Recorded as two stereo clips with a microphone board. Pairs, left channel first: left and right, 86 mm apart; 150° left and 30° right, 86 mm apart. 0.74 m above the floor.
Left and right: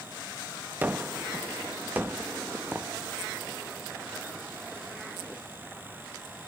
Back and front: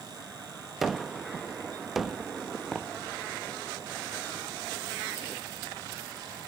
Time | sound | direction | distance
0.8 | a gunshot | 115° right | 0.6 m